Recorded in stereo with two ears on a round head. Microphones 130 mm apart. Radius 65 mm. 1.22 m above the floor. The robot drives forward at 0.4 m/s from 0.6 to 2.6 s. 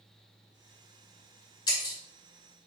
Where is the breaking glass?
30° left (ahead or behind), 2 m.